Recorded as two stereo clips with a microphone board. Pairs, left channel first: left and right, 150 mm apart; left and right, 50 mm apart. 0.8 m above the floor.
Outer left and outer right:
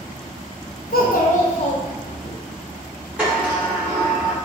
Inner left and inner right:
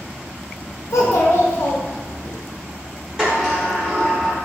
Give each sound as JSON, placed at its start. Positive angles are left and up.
{"t": 0.9, "sound": "a child speaking", "side_deg": 80, "distance_m": 0.5}
{"t": 3.2, "sound": "a sliding door", "side_deg": -10, "distance_m": 1.1}